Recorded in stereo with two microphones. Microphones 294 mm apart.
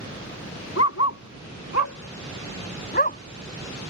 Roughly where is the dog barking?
Left.